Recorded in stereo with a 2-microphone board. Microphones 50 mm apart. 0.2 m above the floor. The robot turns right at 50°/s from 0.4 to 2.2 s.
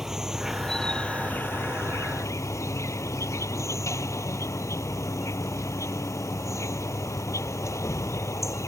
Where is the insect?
10° right; by 8.7 s 80° left.